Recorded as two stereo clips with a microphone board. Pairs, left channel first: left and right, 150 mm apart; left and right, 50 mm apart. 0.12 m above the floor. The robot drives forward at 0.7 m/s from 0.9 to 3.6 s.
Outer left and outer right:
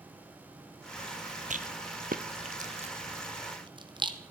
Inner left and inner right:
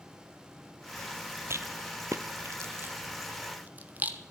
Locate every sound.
1.5 s a rattle: 60° right (ahead or behind), 0.8 m; by 4.2 s 30° right (ahead or behind), 1.4 m